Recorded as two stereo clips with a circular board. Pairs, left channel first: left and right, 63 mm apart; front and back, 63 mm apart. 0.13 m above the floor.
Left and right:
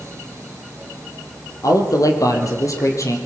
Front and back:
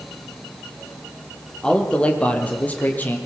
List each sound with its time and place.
1.6 s a man speaking: 75° left, 4 m; by 3.2 s 60° left, 4.5 m